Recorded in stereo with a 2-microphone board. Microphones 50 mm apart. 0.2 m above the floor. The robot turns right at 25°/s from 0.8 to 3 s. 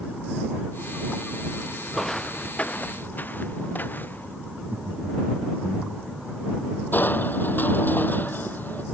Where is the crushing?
40° left (ahead or behind).